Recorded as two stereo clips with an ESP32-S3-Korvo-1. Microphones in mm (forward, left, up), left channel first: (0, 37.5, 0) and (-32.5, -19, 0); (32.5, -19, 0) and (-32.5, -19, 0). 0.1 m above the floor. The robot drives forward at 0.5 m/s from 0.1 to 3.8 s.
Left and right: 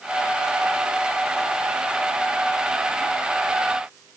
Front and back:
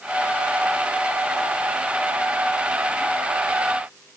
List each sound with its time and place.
Only background noise.